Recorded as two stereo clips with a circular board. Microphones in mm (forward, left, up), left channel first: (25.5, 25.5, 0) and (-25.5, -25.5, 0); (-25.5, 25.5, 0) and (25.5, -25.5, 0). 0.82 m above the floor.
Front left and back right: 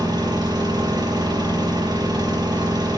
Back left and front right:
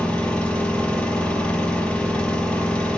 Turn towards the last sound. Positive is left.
turn(degrees=-150)